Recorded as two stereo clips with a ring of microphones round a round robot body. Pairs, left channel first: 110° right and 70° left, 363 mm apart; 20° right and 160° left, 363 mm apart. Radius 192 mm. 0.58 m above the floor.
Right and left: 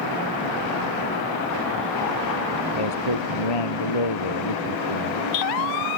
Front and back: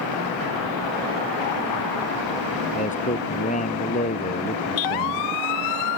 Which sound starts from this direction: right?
A man speaking, at 2.7 s.